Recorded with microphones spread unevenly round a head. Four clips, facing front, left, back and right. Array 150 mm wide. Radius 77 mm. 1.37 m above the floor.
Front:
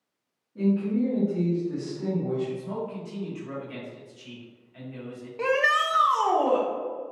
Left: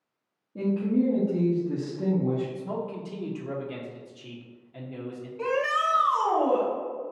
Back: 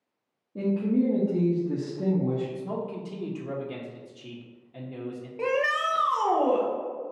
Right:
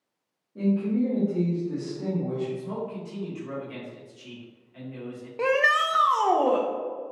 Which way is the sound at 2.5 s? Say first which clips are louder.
Even, even; 160° left.